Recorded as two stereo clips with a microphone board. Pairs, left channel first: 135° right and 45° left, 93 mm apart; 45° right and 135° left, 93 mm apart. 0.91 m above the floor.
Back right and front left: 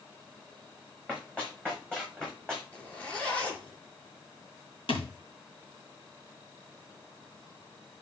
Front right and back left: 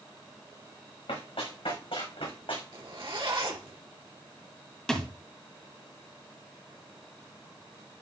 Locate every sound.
1.1 s running footsteps: 60° right, 4.5 m; by 2.6 s 55° right, 3.5 m
2.7 s a zipper: 150° left, 2.5 m
4.9 s a thud: 130° right, 1.9 m